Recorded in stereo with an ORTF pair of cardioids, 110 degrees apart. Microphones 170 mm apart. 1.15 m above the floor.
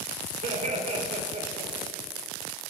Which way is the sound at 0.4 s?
45° right.